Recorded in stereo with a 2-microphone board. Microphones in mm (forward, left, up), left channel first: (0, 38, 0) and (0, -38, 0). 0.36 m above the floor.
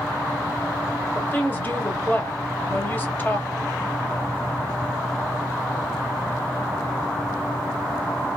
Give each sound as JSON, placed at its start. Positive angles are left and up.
{"t": 1.1, "sound": "a woman speaking", "side_deg": 30, "distance_m": 1.0}